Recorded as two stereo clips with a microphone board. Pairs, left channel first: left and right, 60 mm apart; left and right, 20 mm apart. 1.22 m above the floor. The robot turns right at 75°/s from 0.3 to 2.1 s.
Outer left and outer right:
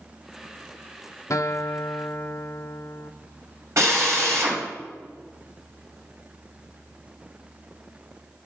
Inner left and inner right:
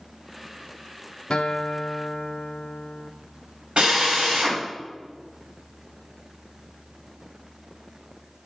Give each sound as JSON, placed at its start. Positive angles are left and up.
{"t": 1.3, "sound": "a guitar", "azimuth_deg": 75, "distance_m": 0.5}
{"t": 3.8, "sound": "a drill", "side_deg": -60, "distance_m": 4.0}